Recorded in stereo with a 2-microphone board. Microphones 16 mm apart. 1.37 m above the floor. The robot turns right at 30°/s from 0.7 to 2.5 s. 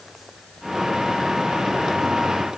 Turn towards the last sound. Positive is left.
No sound to turn to.